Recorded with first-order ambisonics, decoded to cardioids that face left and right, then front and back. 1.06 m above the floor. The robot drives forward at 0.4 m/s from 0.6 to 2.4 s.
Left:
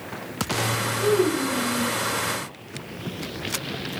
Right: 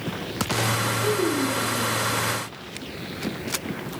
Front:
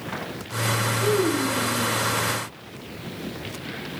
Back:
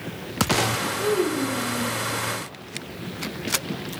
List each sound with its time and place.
1.0 s a child speaking: 135° left, 1.2 m; by 1.9 s 145° left, 1.5 m